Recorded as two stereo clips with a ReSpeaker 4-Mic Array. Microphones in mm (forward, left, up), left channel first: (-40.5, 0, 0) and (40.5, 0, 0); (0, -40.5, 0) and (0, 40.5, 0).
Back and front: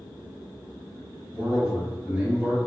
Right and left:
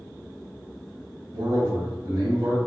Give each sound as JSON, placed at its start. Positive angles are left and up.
{"t": 1.3, "sound": "a man speaking", "azimuth_deg": 75, "distance_m": 1.5}